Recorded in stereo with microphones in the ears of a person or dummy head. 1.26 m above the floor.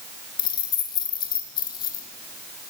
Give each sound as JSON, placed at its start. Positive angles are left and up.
{"t": 0.4, "sound": "keys jangling", "side_deg": 25, "distance_m": 1.3}